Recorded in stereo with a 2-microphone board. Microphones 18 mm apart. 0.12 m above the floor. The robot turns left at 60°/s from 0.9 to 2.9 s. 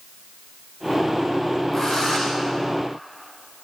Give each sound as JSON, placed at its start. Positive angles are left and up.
{"t": 1.7, "sound": "a drill", "azimuth_deg": 150, "distance_m": 9.5}